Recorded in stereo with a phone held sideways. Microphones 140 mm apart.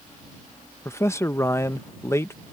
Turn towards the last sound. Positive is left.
turn(degrees=20)  # may be behind; listen again after turning